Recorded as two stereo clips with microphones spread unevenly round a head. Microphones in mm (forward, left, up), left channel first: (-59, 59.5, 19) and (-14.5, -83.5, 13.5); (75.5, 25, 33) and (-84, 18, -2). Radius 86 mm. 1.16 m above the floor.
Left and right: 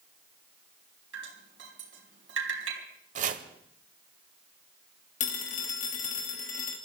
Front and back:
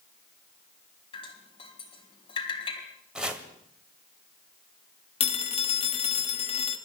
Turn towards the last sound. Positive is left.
turn(degrees=55)